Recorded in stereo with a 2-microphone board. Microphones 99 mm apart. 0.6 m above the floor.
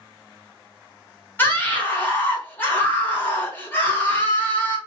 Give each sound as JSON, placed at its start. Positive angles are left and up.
{"t": 1.4, "sound": "a scream", "side_deg": 20, "distance_m": 1.2}